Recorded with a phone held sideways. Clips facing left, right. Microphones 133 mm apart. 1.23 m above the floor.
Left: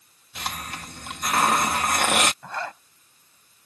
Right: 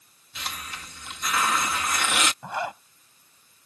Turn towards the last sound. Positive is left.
turn(degrees=-15)  # may be behind; listen again after turning